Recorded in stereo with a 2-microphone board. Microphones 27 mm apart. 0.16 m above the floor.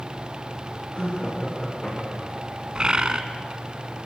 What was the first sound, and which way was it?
Laughter, 45° left (ahead or behind).